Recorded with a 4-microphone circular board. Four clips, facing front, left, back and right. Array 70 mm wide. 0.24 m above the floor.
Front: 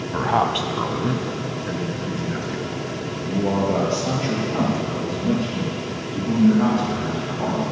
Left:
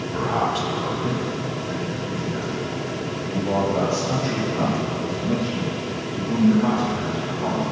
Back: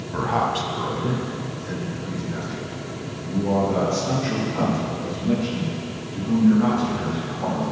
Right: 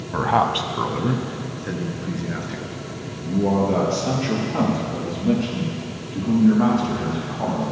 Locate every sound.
0.1 s a man speaking: 55° right, 1.1 m